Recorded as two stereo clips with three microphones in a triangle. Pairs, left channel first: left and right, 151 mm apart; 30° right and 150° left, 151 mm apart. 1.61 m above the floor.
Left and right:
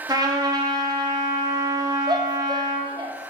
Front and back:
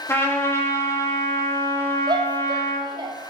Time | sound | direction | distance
0.1 | a trumpet | 80° right | 0.7 m
2.1 | a shout | 150° right | 0.6 m